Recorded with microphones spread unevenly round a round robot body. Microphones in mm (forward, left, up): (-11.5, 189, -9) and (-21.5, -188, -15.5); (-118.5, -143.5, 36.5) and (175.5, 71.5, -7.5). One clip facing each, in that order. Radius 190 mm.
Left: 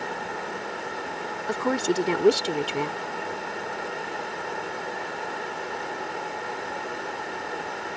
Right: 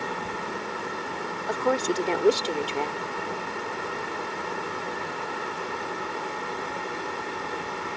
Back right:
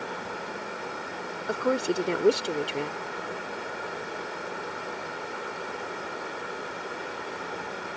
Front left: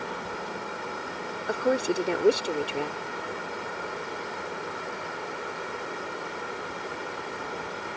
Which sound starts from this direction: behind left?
A woman speaking, at 1.5 s.